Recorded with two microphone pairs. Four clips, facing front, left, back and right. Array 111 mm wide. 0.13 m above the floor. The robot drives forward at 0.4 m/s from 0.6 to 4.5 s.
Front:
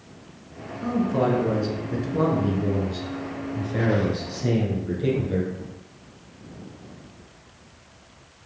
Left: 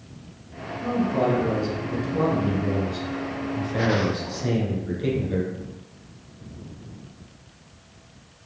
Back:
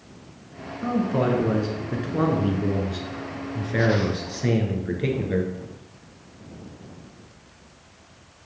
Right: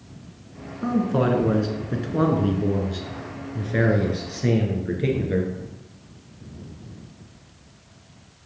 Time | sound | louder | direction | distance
0.8 | a man speaking | right 1 dB, even | 95° right | 1.6 m